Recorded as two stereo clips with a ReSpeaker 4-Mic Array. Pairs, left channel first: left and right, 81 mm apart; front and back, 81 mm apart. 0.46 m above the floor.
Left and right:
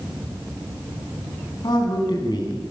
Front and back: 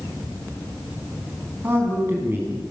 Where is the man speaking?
120° left, 5 m.